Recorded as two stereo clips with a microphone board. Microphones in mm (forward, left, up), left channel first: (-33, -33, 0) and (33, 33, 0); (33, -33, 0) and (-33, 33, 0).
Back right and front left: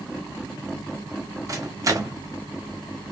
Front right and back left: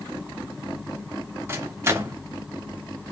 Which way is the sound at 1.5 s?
80° left.